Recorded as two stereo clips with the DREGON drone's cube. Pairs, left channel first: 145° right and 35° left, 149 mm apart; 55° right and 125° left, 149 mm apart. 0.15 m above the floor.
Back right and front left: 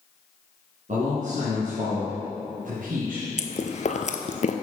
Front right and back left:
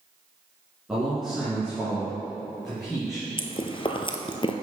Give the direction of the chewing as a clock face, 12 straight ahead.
4 o'clock.